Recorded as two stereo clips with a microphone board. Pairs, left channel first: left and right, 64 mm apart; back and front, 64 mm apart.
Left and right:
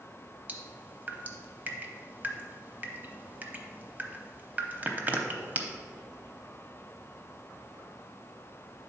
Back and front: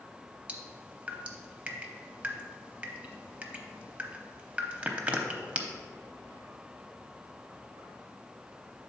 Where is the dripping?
50° right, 0.7 m.